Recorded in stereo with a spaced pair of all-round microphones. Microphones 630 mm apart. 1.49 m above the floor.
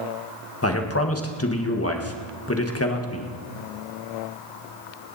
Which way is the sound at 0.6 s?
20° left (ahead or behind).